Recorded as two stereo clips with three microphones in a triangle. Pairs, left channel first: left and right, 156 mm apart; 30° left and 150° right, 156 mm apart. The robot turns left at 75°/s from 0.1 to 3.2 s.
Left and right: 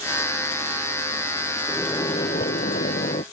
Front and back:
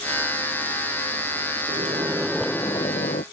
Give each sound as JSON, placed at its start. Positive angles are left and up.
{"t": 1.7, "sound": "a microwave", "azimuth_deg": 170}